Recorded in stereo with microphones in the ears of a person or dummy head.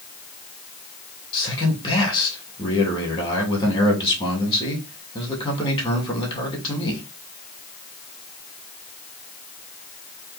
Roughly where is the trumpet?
I don't hear a trumpet.